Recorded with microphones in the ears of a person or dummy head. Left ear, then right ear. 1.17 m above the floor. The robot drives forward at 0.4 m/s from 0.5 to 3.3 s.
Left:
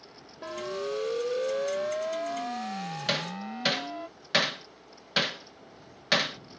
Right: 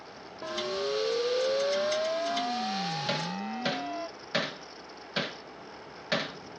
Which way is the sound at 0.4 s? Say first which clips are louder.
Right 2 dB; centre (ahead or behind).